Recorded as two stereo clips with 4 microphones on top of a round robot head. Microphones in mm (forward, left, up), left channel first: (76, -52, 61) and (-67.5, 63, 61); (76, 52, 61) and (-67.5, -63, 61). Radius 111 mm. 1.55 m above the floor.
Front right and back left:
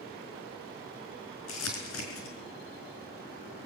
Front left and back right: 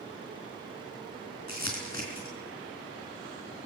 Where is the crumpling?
30° right, 4.5 m.